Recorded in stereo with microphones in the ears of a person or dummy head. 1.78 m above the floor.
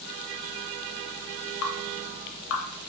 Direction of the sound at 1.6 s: 85° left.